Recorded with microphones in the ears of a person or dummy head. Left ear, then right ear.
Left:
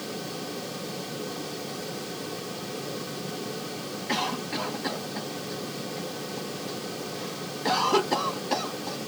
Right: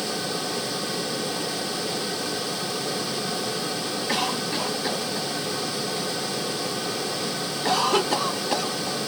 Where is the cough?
10° right (ahead or behind).